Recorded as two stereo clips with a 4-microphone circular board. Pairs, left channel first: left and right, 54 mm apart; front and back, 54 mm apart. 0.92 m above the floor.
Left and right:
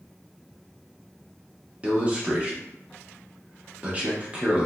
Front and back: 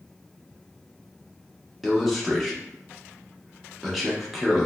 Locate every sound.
1.8 s a man speaking: 95° right, 0.7 m